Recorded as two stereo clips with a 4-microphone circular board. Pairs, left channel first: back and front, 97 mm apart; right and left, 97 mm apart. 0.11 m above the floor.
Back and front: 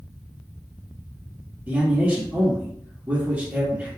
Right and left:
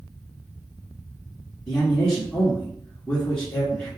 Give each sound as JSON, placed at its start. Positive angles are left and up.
{"t": 1.7, "sound": "a man speaking", "azimuth_deg": -25, "distance_m": 1.1}